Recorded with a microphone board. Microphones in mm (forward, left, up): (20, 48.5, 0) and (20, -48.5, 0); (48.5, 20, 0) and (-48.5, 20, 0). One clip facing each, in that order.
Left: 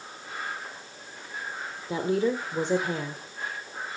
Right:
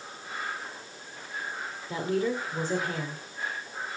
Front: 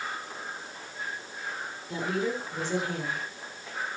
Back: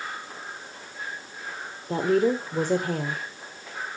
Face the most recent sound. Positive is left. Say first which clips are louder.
# left 3 dB, back 8 dB
turn(degrees=150)